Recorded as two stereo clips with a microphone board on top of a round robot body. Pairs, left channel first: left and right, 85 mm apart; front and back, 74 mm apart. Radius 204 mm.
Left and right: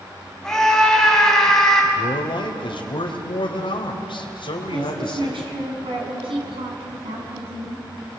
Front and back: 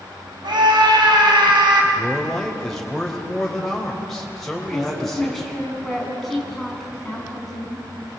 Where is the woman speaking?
85° right, 6.5 m.